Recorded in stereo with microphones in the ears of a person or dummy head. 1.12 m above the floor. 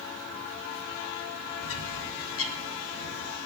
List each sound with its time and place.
1.6 s a bird: 65° left (ahead or behind), 1.2 m